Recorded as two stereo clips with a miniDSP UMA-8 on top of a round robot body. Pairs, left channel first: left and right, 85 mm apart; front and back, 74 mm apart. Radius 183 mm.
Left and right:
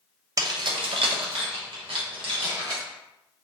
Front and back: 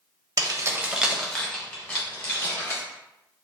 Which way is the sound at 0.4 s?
145° right.